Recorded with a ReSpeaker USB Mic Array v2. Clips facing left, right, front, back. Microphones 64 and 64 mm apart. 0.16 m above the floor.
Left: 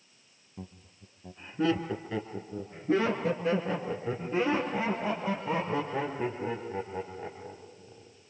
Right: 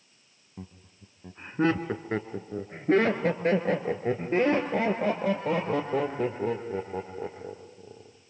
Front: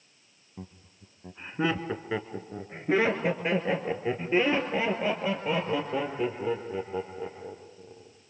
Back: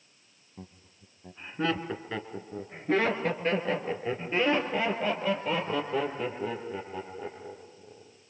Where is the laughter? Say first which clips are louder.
Right 1 dB, front 3 dB; 55° right, 1.2 m; by 8.1 s 80° right, 5 m.